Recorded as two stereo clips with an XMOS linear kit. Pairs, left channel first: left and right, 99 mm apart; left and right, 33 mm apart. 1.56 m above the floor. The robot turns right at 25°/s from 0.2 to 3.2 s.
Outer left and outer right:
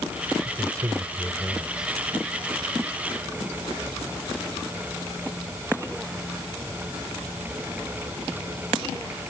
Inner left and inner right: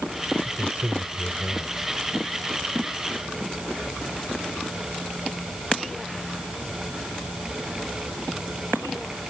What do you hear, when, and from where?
0.5 s a man speaking: 40° right; by 1.9 s 5° right